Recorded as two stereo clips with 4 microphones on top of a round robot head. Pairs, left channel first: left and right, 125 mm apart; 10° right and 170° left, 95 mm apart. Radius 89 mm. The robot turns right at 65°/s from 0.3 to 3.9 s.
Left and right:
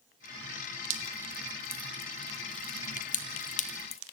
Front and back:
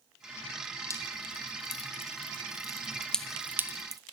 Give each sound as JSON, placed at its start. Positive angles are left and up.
{"t": 0.9, "sound": "dripping", "azimuth_deg": -70, "distance_m": 1.9}